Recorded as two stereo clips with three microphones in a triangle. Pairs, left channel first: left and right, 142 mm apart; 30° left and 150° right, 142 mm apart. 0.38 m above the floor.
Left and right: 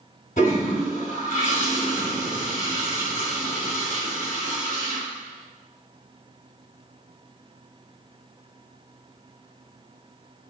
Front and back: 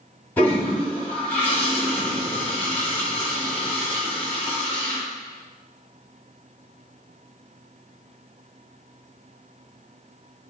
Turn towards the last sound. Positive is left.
turn(degrees=105)